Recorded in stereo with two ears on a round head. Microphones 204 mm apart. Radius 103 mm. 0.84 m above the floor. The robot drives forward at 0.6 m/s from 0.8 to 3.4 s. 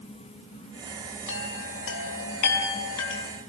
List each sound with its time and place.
1.3 s a chime: 55° left (ahead or behind), 3.5 m; by 3.2 s 75° left (ahead or behind), 3 m